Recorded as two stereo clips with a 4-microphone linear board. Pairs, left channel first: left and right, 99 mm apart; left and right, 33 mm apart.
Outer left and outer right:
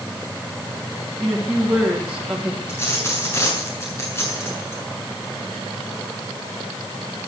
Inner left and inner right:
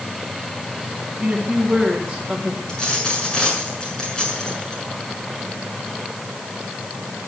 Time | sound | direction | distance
1.2 | a woman speaking | 5° right (ahead or behind) | 3.5 m
2.7 | a dropped coin | 25° left (ahead or behind) | 7 m